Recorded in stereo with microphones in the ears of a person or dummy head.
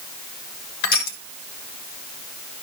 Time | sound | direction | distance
0.8 | crushing | 55° left (ahead or behind) | 1.4 m